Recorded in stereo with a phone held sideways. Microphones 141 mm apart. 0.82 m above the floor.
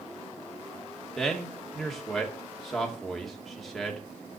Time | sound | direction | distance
1.2 | a man speaking | centre (ahead or behind) | 2.5 m